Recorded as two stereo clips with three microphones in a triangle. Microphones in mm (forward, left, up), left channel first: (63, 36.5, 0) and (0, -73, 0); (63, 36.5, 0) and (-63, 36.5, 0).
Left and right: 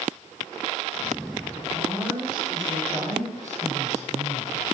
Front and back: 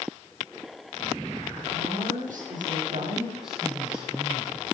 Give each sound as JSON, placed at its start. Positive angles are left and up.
{"t": 1.7, "sound": "a woman speaking", "azimuth_deg": 175, "distance_m": 9.5}
{"t": 3.4, "sound": "a man speaking", "azimuth_deg": -95, "distance_m": 7.0}